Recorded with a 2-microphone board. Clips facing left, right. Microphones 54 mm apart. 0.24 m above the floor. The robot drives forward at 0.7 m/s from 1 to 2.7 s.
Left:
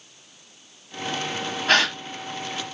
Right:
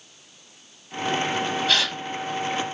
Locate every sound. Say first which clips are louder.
1.7 s a gasp: left 8 dB; 40° left (ahead or behind), 0.7 m